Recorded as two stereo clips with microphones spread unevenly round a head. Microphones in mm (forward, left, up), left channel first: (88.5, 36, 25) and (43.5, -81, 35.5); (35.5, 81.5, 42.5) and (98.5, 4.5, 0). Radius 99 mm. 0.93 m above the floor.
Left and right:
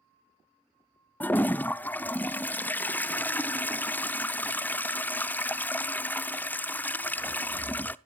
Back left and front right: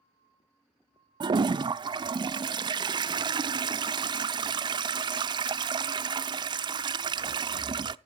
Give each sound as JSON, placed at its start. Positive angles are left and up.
{"t": 1.2, "sound": "a toilet flushing", "azimuth_deg": -5, "distance_m": 0.5}